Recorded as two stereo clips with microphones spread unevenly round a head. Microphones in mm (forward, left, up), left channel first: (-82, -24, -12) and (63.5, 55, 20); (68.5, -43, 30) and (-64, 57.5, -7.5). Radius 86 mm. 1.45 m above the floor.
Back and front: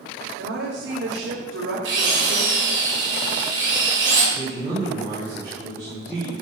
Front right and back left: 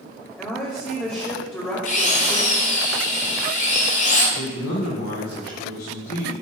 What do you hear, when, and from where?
0.4 s a woman speaking: 40° left, 3 m
1.9 s a drill: 5° left, 7.5 m
4.3 s a man speaking: 50° right, 6 m